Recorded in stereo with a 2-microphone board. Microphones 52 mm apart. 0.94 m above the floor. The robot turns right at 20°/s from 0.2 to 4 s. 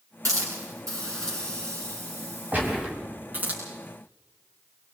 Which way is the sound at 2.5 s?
30° right (ahead or behind).